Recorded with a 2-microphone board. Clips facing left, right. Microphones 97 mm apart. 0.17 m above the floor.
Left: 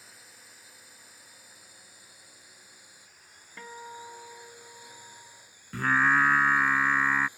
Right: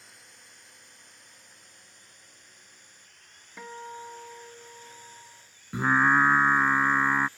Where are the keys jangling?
I don't hear keys jangling.